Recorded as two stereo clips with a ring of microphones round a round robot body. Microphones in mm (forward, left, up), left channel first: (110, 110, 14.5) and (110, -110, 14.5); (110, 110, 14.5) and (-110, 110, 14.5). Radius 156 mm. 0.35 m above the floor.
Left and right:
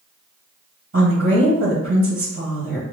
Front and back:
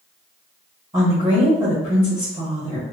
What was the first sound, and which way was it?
A woman speaking, 120° right.